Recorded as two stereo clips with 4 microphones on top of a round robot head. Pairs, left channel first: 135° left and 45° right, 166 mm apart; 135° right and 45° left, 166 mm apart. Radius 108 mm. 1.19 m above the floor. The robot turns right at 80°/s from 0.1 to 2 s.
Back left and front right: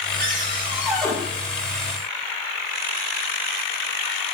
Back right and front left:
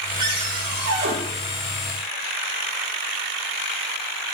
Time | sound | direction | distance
0.2 | a cupboard door | 20° right | 5.5 m